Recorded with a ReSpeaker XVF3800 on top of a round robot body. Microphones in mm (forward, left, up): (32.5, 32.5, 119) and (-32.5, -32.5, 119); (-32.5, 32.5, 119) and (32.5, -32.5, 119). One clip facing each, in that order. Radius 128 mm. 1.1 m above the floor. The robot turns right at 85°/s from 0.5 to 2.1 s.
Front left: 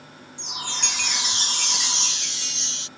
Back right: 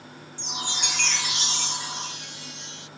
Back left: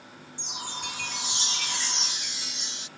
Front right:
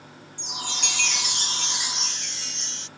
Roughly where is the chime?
Right.